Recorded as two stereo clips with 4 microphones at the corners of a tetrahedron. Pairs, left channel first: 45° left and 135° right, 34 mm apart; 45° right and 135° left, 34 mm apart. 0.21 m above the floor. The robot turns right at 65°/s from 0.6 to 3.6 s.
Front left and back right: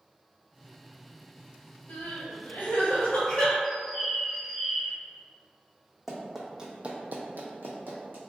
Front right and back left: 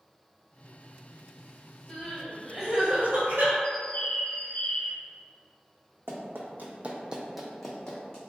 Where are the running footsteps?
135° left, 0.9 m; by 8.2 s 110° right, 1.1 m.